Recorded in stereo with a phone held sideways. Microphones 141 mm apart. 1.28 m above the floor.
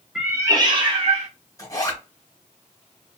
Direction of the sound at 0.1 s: 5° right (ahead or behind).